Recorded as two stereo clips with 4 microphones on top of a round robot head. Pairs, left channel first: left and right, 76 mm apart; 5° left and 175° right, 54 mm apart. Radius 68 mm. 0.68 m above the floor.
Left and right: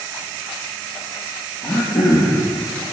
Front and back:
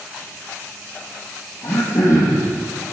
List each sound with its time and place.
1.6 s throat clearing: 45° left, 4 m